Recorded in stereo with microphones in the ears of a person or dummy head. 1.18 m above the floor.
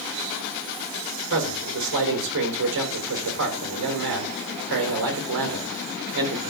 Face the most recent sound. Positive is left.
turn(degrees=-55)  # may be behind; listen again after turning